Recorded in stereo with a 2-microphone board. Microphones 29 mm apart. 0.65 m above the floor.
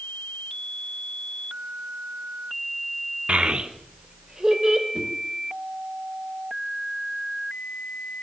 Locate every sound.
3.3 s a child speaking: 45° right (ahead or behind), 1.0 m; by 4.8 s 15° right (ahead or behind), 2.5 m
4.9 s a whoosh: 25° right (ahead or behind), 7 m